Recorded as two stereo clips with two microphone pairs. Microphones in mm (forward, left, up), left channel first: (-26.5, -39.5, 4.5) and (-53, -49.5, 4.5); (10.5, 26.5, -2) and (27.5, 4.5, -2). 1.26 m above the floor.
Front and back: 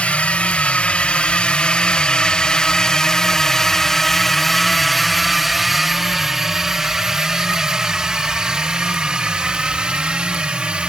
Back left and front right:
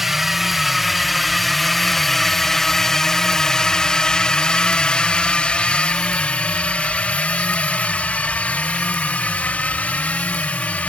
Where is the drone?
25° left; by 10.9 s 150° left.